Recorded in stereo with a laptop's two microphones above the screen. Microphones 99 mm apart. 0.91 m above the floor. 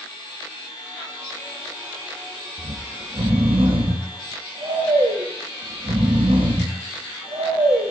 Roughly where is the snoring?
Right.